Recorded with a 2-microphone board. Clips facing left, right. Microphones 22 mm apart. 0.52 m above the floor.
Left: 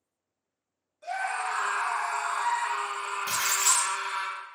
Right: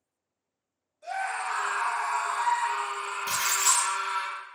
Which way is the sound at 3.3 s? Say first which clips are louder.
Right 1 dB; 55° right (ahead or behind).